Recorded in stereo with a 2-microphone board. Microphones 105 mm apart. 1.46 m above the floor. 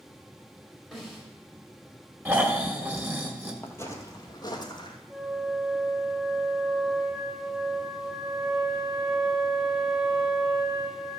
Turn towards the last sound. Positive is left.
turn(degrees=-10)  # may be behind; listen again after turning